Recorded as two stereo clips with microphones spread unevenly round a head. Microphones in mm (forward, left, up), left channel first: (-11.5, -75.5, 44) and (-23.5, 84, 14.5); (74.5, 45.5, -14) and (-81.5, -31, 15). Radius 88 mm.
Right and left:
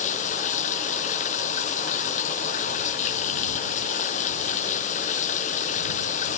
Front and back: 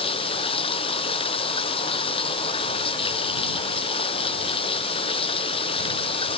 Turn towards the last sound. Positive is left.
turn(degrees=-35)